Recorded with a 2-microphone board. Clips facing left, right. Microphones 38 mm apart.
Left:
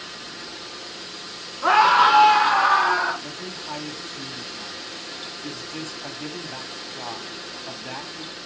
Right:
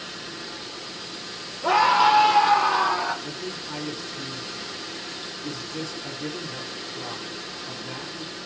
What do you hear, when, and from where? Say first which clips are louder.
1.6 s a scream: left 3 dB; 70° left (ahead or behind), 3 m; by 3.1 s 75° left (ahead or behind), 4 m
3.2 s a man speaking: even; 55° left (ahead or behind), 2.5 m